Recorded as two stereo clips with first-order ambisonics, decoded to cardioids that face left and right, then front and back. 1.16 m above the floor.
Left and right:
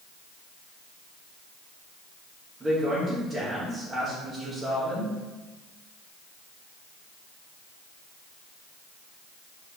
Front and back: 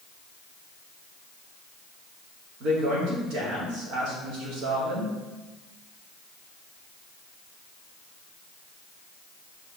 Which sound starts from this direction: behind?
A woman speaking, at 2.6 s.